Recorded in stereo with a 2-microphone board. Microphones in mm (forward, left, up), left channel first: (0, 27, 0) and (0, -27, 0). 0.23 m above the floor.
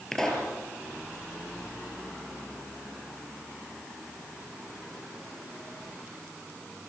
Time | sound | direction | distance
0.1 | a pop | 10° left (ahead or behind) | 4.5 m